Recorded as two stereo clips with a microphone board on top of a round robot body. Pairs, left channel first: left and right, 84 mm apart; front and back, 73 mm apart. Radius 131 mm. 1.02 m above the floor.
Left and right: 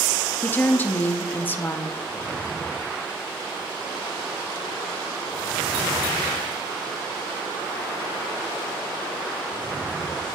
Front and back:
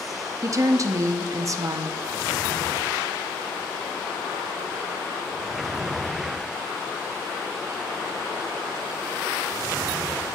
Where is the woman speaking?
150° left, 0.6 m.